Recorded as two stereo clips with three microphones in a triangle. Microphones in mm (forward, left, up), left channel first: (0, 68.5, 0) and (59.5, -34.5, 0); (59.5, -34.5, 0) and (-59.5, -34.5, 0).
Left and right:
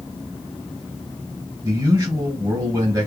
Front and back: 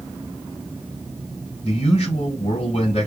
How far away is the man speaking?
About 2.5 m.